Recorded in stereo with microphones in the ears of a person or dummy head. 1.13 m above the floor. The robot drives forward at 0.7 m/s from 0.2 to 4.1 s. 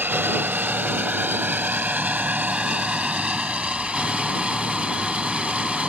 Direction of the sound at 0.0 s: 15° right (ahead or behind).